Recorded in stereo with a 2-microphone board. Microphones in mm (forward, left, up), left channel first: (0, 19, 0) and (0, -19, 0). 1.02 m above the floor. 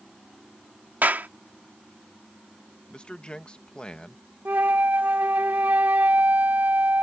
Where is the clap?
55° right (ahead or behind).